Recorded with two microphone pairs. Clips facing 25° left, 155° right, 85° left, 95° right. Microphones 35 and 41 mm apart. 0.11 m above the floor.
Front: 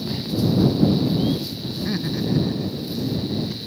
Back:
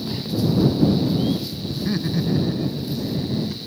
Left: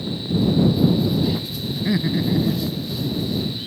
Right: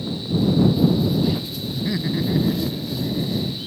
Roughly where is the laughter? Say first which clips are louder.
Back 2 dB, left 2 dB; left.